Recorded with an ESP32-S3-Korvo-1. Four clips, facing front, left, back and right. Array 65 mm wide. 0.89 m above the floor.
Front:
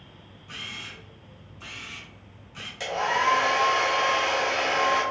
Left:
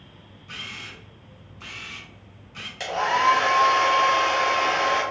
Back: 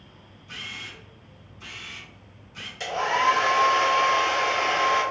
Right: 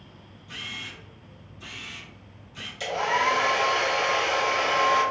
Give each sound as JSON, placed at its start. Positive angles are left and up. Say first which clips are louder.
{"t": 0.5, "sound": "a camera shutter", "louder": "even, back 1 dB", "azimuth_deg": 75, "distance_m": 1.6}
{"t": 2.8, "sound": "a hair dryer", "louder": "left 3 dB, back 2 dB", "azimuth_deg": 85, "distance_m": 2.0}